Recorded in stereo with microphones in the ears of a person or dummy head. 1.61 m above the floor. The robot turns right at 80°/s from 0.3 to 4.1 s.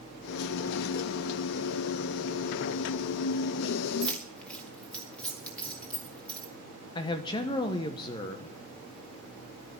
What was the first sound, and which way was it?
Keys jangling, centre (ahead or behind).